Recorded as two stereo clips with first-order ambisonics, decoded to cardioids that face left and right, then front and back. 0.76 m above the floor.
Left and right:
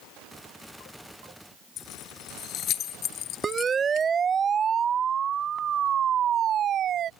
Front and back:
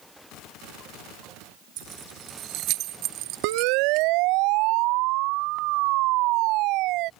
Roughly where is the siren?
Behind.